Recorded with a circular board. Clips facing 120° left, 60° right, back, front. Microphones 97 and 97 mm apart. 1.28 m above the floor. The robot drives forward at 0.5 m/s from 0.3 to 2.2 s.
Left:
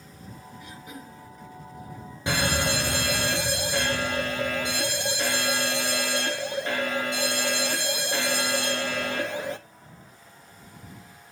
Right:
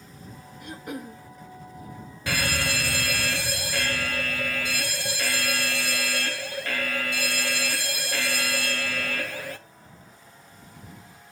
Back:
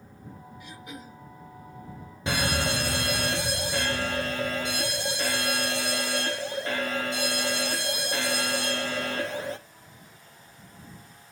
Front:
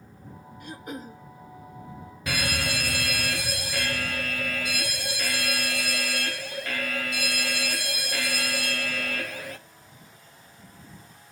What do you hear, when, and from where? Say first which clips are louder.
0.6 s throat clearing: right 9 dB, front 7 dB; 35° right, 1.1 m; by 1.2 s 45° right, 0.8 m
2.3 s a fire alarm: left 3 dB, back 3 dB; 160° left, 1.1 m